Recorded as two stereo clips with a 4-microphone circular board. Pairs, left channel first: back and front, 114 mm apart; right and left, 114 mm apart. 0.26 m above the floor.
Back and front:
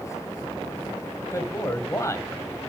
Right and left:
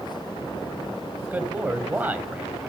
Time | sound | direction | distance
1.2 | a man speaking | 150° left | 1.7 m